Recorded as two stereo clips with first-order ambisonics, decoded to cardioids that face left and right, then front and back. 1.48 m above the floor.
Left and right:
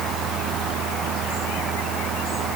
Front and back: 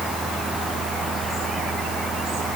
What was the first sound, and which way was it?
Only background noise.